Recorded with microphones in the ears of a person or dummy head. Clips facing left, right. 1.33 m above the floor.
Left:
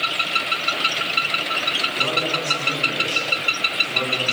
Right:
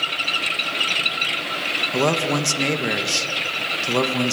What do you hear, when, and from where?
1.9 s a man speaking: 80° right, 1.9 m